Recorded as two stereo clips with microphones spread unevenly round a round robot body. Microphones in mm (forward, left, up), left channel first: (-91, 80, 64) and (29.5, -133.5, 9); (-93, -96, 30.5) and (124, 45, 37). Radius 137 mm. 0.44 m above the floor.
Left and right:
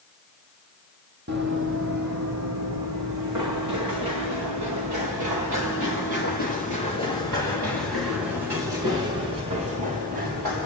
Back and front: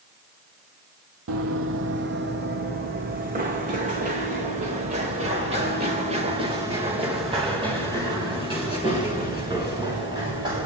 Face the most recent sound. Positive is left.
turn(degrees=-40)